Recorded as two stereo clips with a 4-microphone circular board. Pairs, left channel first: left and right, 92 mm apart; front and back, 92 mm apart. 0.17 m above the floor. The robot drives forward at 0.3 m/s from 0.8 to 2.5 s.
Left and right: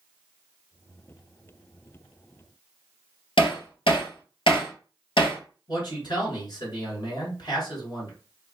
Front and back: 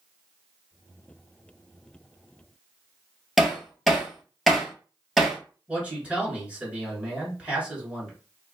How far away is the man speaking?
About 1.9 m.